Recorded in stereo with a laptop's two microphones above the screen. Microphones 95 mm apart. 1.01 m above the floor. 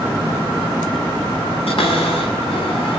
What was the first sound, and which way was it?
A cupboard door, 90° left.